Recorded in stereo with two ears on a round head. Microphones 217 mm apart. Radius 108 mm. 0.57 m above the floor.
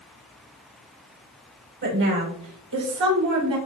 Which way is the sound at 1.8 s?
55° right (ahead or behind).